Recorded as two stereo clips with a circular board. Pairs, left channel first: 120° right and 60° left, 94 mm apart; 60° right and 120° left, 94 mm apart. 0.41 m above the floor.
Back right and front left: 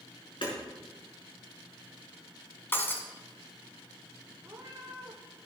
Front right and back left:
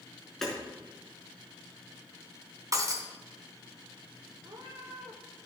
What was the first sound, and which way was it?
Hammering, 145° right.